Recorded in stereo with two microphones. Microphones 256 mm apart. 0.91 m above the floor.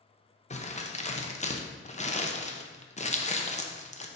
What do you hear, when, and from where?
0.5 s crumpling: 25° left (ahead or behind), 0.6 m